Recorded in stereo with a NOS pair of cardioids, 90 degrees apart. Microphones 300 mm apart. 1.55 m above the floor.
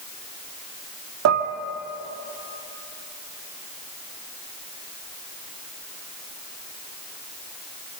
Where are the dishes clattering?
60° right, 2.5 m.